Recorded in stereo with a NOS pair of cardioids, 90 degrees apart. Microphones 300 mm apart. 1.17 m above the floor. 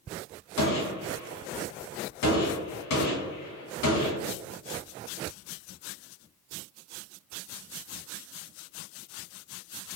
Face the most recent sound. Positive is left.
turn(degrees=70)